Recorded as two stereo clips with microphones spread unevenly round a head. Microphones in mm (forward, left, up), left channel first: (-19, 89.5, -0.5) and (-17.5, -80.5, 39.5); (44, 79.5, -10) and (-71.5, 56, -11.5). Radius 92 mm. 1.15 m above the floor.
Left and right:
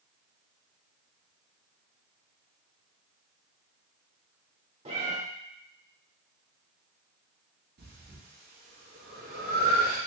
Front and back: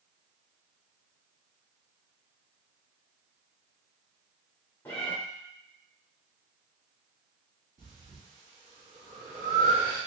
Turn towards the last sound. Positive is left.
turn(degrees=-125)